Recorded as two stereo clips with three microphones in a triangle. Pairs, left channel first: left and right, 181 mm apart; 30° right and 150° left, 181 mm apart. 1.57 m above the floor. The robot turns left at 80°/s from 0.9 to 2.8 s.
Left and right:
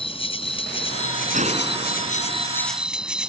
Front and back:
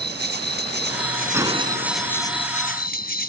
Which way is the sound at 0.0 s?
145° left.